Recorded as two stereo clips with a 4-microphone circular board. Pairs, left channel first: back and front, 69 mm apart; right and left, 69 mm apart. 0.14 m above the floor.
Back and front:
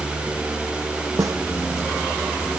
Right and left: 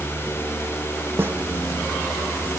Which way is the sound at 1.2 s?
35° left.